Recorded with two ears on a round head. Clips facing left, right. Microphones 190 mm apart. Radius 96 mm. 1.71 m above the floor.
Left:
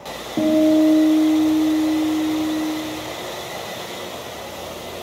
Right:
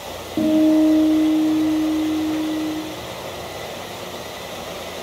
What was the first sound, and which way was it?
A guitar, centre (ahead or behind).